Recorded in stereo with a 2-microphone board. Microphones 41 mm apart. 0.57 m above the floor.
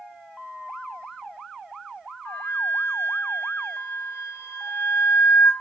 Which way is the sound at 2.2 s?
70° left (ahead or behind).